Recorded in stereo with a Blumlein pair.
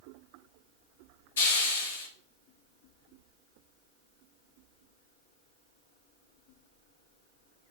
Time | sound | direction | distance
1.4 | a hiss | 60° left | 4.5 m